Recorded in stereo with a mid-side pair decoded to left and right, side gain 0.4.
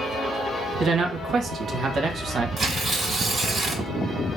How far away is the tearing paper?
About 2 m.